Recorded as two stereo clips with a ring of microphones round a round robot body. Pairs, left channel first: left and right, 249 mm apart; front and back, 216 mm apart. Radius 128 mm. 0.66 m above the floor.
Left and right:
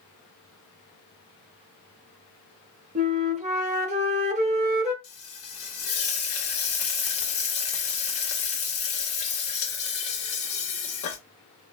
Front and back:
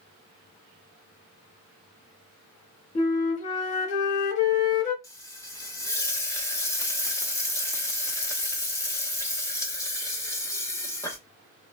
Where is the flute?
40° right, 1.0 m.